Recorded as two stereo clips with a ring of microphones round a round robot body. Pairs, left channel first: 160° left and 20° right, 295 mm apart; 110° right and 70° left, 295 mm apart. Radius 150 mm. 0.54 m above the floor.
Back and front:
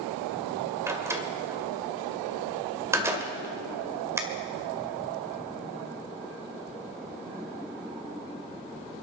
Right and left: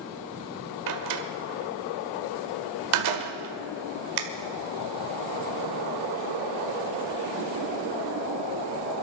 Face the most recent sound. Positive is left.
turn(degrees=60)